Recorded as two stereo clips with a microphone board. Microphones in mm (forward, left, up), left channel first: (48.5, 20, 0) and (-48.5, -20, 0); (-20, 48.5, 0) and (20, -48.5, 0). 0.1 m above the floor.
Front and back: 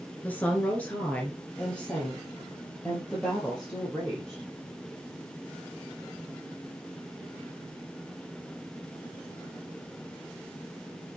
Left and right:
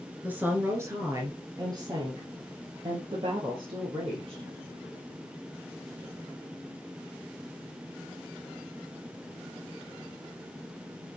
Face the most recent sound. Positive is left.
turn(degrees=-60)